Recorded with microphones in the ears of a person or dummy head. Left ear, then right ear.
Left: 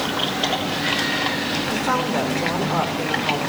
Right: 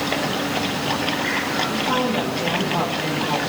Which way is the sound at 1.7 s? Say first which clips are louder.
Even; 50° left (ahead or behind).